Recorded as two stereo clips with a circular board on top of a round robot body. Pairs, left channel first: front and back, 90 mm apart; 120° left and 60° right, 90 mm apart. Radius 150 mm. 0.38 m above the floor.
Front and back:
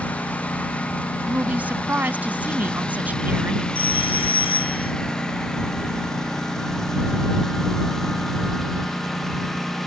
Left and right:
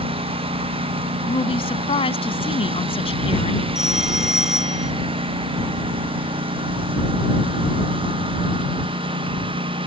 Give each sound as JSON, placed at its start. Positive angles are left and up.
{"t": 0.0, "sound": "a lawn mower", "azimuth_deg": -75}
{"t": 1.3, "sound": "a woman speaking", "azimuth_deg": 105}
{"t": 3.8, "sound": "a phone ringing", "azimuth_deg": 25}